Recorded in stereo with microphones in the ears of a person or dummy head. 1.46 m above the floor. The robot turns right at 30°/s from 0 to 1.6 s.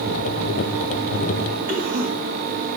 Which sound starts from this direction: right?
A cough, at 1.7 s.